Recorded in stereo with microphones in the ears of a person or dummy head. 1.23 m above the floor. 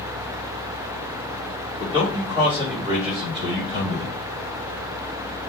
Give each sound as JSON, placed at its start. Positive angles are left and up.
{"t": 1.8, "sound": "a man speaking", "side_deg": -30, "distance_m": 1.1}